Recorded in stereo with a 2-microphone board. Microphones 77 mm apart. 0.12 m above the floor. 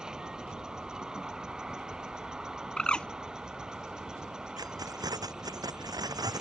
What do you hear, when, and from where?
0.0 s an insect: 10° right (ahead or behind)
2.8 s a bird: 15° left (ahead or behind)
4.6 s keys jangling: 55° right (ahead or behind)